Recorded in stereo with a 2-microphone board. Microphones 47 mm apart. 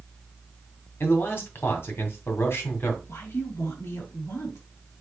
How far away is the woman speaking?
About 3.5 m.